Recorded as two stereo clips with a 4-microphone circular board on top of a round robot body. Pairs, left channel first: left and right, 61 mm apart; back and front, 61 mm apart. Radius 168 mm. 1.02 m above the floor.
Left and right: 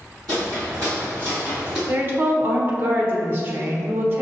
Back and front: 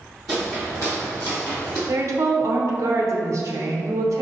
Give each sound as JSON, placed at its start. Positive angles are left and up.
{"t": 0.3, "sound": "footsteps", "azimuth_deg": -85, "distance_m": 1.1}
{"t": 1.9, "sound": "a woman speaking", "azimuth_deg": -35, "distance_m": 0.7}